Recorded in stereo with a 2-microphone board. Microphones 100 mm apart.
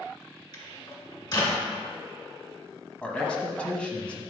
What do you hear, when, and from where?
0.5 s a microwave: 45° left (ahead or behind), 1.9 m
3.0 s a man speaking: 10° left (ahead or behind), 1.2 m